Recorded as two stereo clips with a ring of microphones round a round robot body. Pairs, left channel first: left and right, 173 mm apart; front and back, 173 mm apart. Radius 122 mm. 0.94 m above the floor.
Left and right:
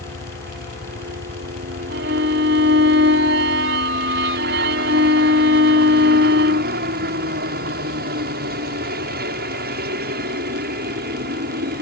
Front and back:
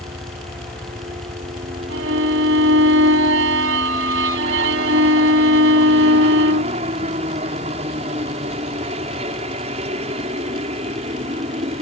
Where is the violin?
140° right.